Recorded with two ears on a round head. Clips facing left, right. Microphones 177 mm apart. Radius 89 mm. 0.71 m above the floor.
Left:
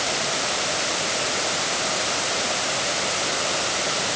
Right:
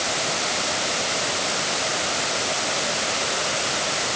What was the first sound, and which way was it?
Only background noise.